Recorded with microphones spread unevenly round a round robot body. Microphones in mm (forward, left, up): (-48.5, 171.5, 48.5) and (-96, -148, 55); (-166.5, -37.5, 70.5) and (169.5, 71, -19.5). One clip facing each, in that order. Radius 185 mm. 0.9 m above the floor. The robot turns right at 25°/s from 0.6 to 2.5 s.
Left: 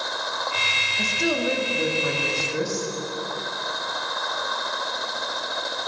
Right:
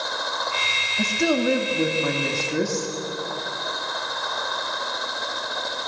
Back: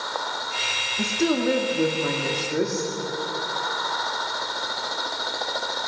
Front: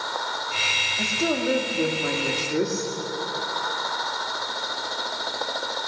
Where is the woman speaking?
100° right, 2 m; by 2.9 s 65° right, 2 m.